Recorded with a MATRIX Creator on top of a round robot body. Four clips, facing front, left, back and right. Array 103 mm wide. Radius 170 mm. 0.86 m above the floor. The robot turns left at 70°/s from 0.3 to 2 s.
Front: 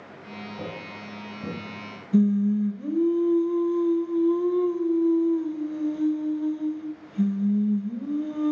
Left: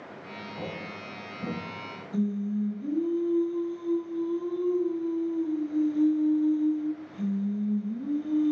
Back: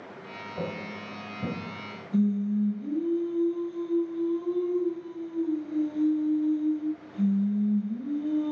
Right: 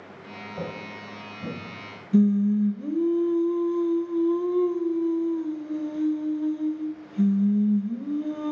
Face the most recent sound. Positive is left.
turn(degrees=-50)